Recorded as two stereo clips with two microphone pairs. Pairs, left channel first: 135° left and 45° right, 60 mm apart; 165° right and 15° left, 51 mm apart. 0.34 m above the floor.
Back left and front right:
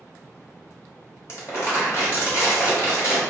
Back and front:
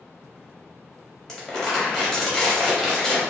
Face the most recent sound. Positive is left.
turn(degrees=120)